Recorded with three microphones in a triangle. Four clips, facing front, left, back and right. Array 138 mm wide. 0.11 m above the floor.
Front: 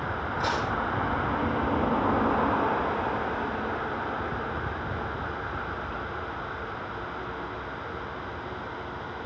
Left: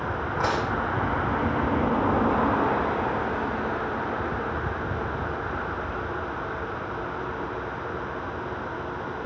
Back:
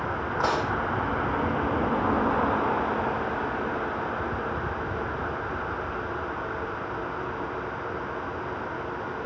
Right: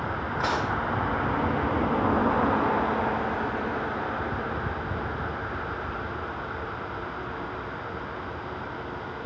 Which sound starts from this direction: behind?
Dishes clattering, at 0.4 s.